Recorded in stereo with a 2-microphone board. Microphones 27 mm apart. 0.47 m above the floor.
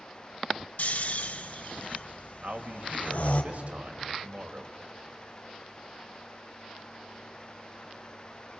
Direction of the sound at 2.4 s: 55° right (ahead or behind).